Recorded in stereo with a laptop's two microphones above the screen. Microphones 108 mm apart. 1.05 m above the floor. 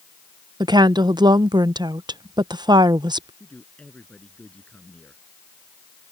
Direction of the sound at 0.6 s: 40° right (ahead or behind).